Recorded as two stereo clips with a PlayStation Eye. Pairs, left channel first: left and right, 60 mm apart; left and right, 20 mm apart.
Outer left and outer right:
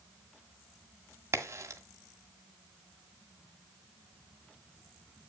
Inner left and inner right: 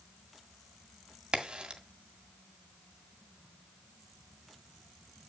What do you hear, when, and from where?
1.3 s a crack: 50° right (ahead or behind), 1.8 m